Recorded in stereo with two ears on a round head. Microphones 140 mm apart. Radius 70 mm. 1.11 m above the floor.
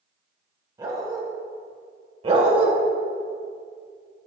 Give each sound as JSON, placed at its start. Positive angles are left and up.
{"t": 0.8, "sound": "a dog barking", "side_deg": -25, "distance_m": 1.6}
{"t": 2.2, "sound": "a dog barking", "side_deg": -35, "distance_m": 1.5}